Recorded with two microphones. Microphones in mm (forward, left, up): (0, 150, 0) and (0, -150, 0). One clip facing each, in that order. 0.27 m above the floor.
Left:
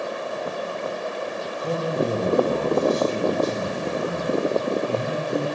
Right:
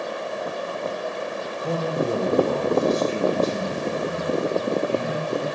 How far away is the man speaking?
About 1.0 m.